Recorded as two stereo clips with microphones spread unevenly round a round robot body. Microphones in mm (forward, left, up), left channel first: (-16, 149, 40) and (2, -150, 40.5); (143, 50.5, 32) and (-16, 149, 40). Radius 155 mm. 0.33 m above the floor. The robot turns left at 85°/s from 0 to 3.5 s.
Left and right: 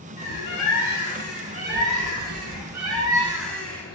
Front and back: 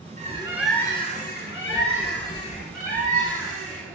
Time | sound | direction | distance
0.2 | a bird | 100° left | 3.5 m